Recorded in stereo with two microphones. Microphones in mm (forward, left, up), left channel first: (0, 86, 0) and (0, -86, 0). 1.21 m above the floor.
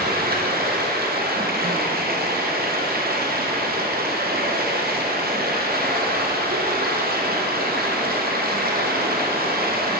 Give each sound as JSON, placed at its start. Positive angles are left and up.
{"t": 0.0, "sound": "running water", "side_deg": -60, "distance_m": 0.7}